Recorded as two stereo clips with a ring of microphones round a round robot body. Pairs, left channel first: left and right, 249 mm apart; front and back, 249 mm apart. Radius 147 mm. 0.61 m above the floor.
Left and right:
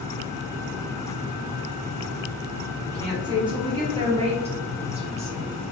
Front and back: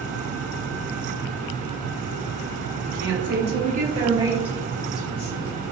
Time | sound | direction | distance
2.9 | a woman speaking | 165° right | 1.5 m